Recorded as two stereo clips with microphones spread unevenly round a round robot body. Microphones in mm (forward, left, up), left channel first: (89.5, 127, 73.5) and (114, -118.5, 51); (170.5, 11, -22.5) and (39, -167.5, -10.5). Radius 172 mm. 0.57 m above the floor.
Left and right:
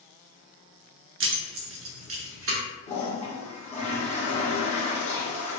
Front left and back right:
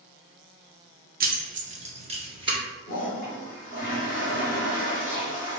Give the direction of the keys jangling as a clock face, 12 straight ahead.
3 o'clock.